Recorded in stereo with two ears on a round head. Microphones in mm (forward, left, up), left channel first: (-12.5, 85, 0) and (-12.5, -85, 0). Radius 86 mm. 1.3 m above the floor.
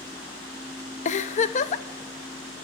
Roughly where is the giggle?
Left.